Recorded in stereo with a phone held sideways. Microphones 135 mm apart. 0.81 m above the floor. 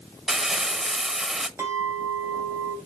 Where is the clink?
20° right (ahead or behind), 2.5 m.